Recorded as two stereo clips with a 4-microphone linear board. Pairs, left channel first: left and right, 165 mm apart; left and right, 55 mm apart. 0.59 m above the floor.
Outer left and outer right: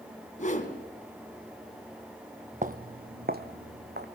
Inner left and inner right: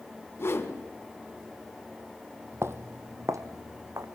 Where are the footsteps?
55° right (ahead or behind), 0.9 m; by 4.0 s 75° right (ahead or behind), 2 m.